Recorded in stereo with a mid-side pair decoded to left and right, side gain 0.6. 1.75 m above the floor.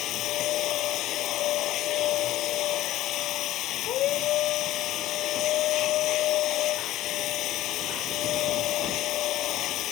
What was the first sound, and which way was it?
A machine running, 60° left.